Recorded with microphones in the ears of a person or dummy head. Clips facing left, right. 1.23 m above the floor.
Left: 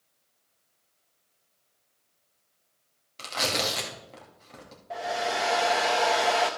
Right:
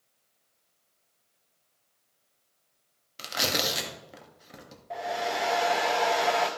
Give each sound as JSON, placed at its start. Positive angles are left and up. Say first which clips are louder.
{"t": 3.2, "sound": "tearing paper", "louder": "left 1 dB", "side_deg": -15, "distance_m": 1.5}
{"t": 4.9, "sound": "a hair dryer", "louder": "left 1 dB", "side_deg": 5, "distance_m": 0.6}